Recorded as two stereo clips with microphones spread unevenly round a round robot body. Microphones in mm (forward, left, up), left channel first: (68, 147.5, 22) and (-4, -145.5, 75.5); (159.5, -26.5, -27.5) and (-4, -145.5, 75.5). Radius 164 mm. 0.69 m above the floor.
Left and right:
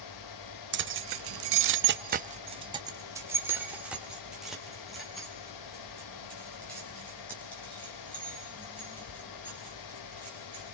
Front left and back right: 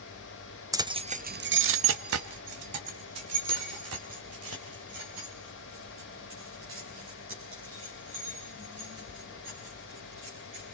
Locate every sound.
0.7 s keys jangling: 50° right, 0.7 m; by 10.6 s 160° left, 5.5 m